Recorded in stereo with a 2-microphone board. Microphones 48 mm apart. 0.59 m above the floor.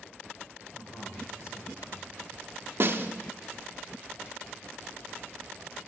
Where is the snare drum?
55° right (ahead or behind), 0.8 m.